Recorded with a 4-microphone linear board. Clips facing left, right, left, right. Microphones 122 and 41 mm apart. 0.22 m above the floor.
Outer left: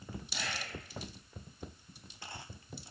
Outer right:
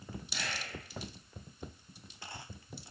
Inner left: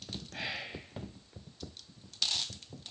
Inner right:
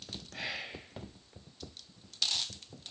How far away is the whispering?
About 1.0 m.